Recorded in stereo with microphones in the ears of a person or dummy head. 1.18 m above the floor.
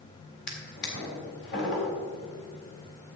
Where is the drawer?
60° left (ahead or behind), 3.5 m.